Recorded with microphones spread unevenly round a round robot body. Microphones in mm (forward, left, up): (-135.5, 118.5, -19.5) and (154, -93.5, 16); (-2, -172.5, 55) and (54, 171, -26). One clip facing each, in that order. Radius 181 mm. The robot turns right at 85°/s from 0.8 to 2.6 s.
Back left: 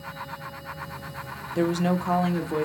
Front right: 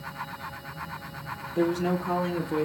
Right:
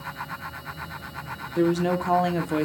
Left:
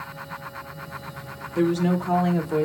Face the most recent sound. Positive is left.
turn(degrees=-125)